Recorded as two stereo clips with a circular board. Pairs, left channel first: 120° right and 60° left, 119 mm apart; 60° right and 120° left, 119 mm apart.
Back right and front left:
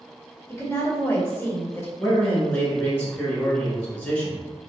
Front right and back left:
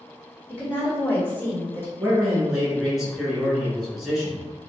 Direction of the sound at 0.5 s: 110° right.